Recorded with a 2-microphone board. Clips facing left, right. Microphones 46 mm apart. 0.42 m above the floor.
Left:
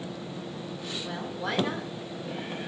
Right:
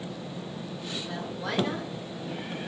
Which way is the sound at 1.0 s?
10° left (ahead or behind).